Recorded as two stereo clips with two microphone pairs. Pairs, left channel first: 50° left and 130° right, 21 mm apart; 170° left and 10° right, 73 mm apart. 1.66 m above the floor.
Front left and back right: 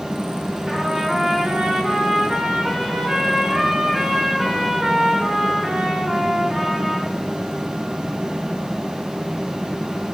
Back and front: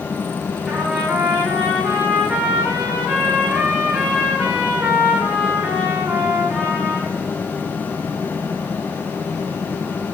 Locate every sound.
0.7 s a trumpet: 90° right, 4.5 m